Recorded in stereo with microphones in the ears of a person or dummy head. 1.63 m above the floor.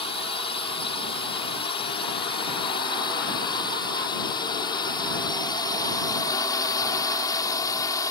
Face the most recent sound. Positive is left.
turn(degrees=20)  # may be behind; listen again after turning